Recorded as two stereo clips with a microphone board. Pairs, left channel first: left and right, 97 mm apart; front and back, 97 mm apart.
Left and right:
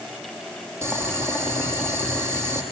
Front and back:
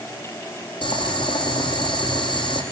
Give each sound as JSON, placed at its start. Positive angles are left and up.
{"t": 0.8, "sound": "boiling", "azimuth_deg": -30, "distance_m": 5.0}